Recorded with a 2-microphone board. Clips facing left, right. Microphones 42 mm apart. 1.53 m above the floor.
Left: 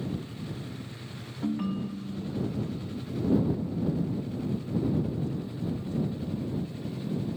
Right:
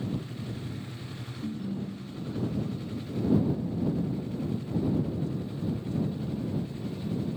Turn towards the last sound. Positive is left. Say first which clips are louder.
# left 5 dB
turn(degrees=70)  # may be behind; listen again after turning